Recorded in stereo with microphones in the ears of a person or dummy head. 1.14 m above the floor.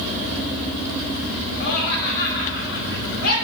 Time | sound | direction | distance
1.6 | laughter | 70° left (ahead or behind) | 1.9 m